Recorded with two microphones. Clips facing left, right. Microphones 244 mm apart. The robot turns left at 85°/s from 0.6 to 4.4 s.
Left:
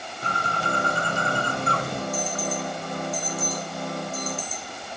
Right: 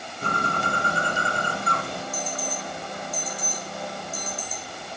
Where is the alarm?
55° left (ahead or behind), 4 m; by 5.0 s 65° right (ahead or behind), 4 m.